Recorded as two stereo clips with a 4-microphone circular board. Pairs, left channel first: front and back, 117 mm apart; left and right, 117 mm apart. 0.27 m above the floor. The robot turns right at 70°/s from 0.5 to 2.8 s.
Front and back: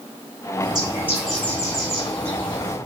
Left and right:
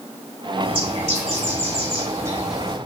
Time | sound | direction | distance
0.6 | a bird | 140° right | 4.5 m